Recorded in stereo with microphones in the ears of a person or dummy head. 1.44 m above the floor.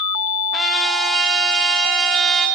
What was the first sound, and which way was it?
A trumpet, centre (ahead or behind).